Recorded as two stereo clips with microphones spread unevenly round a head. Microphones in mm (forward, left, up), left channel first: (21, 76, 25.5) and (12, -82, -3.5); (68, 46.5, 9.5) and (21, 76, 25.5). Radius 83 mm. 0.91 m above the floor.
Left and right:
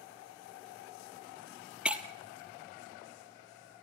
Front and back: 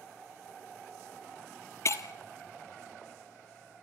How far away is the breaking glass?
About 1.3 m.